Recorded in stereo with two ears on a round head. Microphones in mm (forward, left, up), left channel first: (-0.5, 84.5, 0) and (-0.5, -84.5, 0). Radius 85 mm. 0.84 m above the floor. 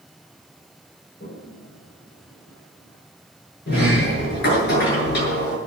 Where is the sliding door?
55° left (ahead or behind), 7.5 m.